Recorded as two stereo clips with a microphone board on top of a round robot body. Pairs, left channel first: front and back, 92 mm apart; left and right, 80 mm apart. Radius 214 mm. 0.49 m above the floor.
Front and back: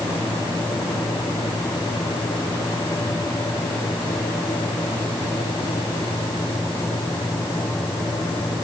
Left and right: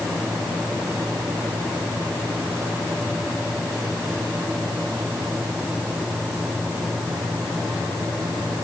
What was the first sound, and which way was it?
Only background noise.